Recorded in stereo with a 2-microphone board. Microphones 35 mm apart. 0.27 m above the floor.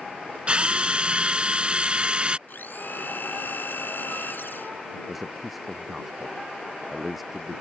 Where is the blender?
65° left (ahead or behind).